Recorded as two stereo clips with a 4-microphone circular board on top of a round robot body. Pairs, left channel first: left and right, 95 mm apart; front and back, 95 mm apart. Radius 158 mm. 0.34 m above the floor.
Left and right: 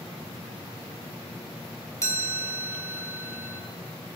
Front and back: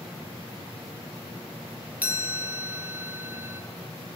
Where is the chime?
115° left, 1.7 m.